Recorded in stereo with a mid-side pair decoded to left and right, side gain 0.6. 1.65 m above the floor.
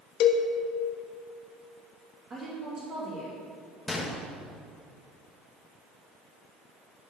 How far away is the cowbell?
About 1.2 m.